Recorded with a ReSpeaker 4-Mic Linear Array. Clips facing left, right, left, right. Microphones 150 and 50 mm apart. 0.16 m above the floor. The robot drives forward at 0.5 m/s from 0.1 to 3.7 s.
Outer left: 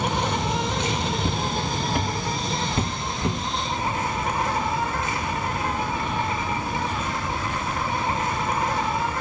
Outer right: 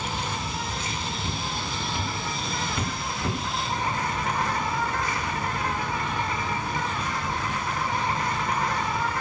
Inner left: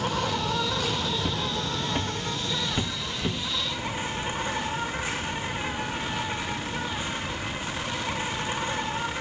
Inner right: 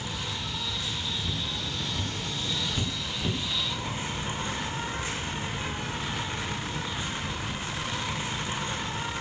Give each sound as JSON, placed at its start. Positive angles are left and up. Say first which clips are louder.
{"t": 0.0, "sound": "an insect", "louder": "outer left 7 dB, inner left 8 dB", "side_deg": 70, "distance_m": 0.7}
{"t": 1.2, "sound": "footsteps", "louder": "outer left 6 dB, inner left 5 dB", "side_deg": 85, "distance_m": 2.5}